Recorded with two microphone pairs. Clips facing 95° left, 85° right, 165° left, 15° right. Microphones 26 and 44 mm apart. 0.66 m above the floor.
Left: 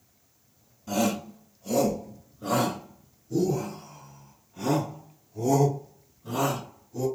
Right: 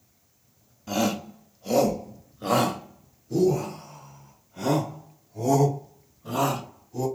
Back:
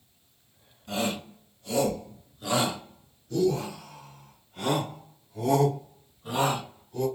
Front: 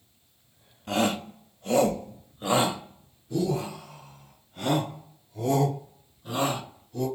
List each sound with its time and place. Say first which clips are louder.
0.9 s a shout: right 1 dB, front 4 dB; 20° right, 1.3 m; by 7.1 s 120° right, 3.5 m